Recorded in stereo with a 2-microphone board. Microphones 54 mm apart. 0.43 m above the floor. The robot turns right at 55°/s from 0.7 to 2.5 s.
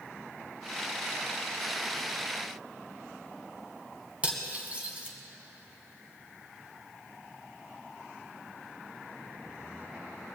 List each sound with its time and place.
4.2 s cutlery clinking: 25° right (ahead or behind), 1.8 m